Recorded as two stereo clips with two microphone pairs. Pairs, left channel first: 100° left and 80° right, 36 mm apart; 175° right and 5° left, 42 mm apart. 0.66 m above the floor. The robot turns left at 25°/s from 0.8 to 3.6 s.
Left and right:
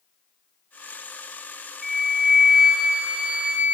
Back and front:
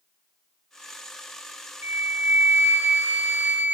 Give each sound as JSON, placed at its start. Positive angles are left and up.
{"t": 1.8, "sound": "a flute", "azimuth_deg": 10, "distance_m": 1.5}